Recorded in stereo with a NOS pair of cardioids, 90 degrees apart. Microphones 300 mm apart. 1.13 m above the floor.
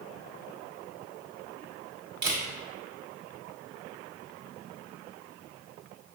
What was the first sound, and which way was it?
A camera shutter, 35° right.